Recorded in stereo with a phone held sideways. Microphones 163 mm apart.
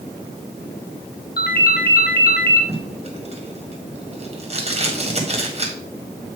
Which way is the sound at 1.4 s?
75° left (ahead or behind).